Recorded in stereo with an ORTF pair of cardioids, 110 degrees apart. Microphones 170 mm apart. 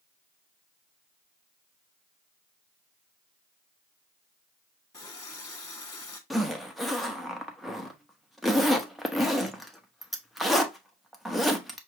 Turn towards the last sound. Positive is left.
turn(degrees=0)